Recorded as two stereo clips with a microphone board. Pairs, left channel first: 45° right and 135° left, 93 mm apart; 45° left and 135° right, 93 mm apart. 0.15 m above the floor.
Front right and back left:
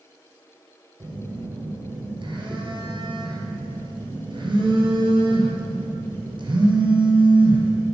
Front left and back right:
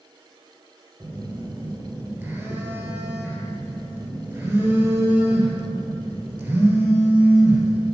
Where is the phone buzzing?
155° left, 2.5 m.